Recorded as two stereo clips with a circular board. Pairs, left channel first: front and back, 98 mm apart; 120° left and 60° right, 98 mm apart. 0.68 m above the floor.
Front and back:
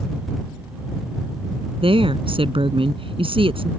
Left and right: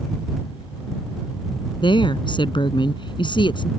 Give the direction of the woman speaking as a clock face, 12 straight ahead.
7 o'clock.